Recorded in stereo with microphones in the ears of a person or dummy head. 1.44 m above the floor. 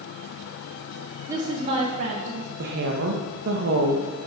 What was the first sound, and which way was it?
A woman speaking, 20° right (ahead or behind).